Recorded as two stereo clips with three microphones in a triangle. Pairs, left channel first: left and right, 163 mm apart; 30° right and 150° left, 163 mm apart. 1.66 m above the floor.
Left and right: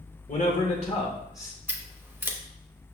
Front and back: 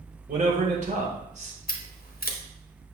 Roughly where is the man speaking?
Behind left.